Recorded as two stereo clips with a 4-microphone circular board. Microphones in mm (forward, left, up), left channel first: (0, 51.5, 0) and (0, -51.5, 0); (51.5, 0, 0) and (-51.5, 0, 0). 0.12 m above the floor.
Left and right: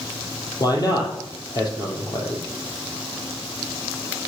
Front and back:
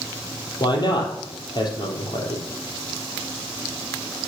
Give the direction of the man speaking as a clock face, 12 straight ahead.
11 o'clock.